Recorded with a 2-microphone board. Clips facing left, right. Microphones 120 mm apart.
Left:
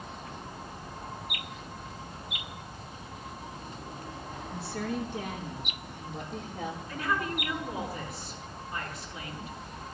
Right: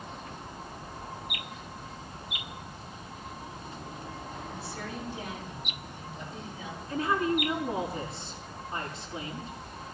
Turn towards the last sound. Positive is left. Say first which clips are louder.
# right 6 dB
turn(degrees=-30)  # may be behind; listen again after turning